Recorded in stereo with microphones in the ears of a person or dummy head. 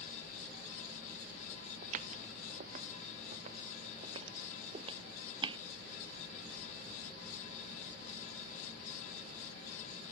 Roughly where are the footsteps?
Right.